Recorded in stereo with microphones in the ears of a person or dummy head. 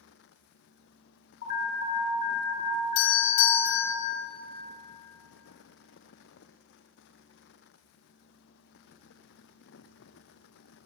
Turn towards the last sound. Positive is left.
turn(degrees=75)  # may be behind; listen again after turning